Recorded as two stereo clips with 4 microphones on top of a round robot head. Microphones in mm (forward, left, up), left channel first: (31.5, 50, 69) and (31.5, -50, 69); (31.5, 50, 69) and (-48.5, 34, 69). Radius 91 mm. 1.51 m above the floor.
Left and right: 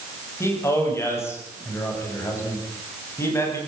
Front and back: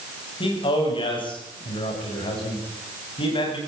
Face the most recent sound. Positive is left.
turn(degrees=25)